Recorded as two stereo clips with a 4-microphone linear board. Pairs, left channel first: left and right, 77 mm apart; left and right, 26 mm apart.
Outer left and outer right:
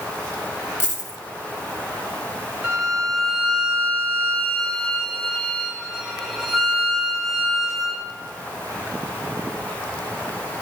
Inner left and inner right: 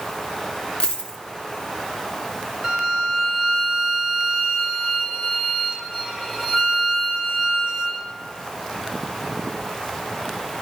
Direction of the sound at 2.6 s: 10° right (ahead or behind).